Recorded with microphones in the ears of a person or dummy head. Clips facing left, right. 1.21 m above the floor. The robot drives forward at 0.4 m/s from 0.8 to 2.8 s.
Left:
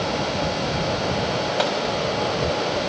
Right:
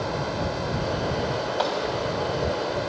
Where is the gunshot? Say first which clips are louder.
Left 2 dB; 35° left (ahead or behind), 3 m.